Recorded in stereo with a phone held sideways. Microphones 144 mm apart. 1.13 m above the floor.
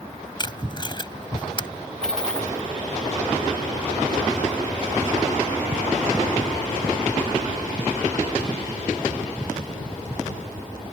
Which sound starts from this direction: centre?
A dropped coin, at 2.0 s.